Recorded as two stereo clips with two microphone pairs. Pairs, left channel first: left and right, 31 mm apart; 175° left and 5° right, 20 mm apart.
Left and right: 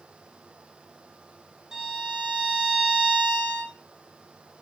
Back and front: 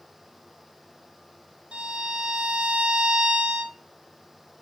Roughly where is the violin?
Ahead.